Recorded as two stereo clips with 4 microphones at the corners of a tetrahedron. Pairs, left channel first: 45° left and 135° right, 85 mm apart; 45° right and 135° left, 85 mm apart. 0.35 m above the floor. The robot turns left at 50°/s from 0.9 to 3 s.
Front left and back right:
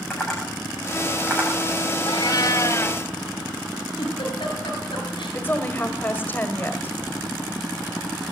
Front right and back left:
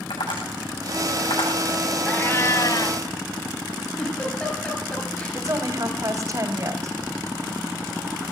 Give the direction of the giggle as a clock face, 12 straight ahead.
11 o'clock.